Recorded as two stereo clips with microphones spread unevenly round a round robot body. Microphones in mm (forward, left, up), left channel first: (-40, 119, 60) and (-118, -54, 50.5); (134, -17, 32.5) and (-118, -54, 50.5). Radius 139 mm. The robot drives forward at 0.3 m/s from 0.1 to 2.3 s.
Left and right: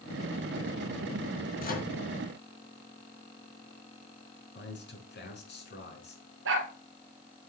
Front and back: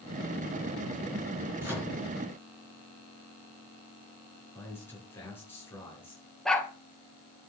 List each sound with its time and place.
1.6 s a microwave: 105° left, 4 m
4.5 s a man speaking: 90° left, 5 m
6.5 s a dog barking: 80° right, 2.0 m